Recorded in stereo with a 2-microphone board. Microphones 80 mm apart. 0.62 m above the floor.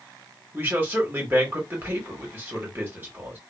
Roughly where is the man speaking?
Right.